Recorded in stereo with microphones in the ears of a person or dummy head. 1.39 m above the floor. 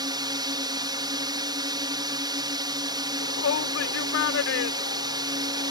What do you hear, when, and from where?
0.0 s a drone: 25° right (ahead or behind)
3.2 s a shout: 70° left (ahead or behind)